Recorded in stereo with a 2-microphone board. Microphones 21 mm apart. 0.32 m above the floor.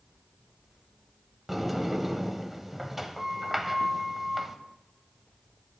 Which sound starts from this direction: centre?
A sliding door, at 1.5 s.